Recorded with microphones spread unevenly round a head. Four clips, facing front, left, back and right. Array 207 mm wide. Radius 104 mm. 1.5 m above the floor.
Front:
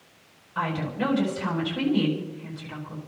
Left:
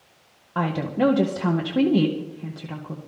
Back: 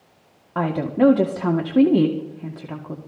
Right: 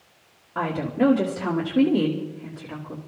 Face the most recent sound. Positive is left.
turn(degrees=160)